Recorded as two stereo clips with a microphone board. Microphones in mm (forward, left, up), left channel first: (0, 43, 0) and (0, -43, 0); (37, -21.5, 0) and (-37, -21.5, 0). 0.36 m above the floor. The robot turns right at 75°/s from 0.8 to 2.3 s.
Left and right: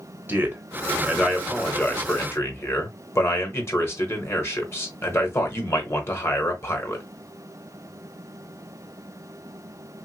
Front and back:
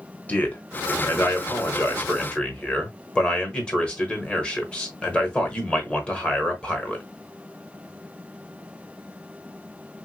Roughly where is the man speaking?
Ahead right.